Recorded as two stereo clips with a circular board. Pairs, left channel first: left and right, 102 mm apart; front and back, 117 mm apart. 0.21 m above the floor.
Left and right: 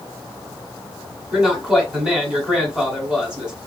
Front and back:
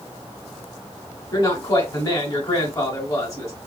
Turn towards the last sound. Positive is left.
turn(degrees=-25)